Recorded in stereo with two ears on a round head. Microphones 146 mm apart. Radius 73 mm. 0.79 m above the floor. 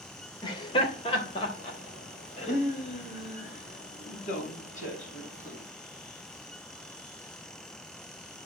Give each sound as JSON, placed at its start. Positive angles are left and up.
{"t": 0.4, "sound": "laughter", "side_deg": 30, "distance_m": 2.5}